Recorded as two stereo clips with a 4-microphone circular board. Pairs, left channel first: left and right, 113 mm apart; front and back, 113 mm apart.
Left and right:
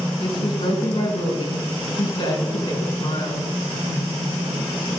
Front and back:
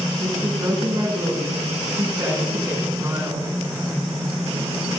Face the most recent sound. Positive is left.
turn(degrees=120)